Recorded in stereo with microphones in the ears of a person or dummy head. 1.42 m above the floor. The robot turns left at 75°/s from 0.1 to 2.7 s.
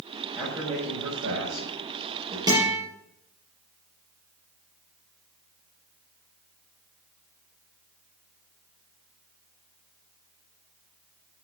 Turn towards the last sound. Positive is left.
turn(degrees=0)  # may be behind; listen again after turning